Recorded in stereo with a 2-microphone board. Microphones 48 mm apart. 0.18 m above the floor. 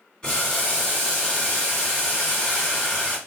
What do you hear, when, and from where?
0.2 s boiling: 20° left (ahead or behind), 1.8 m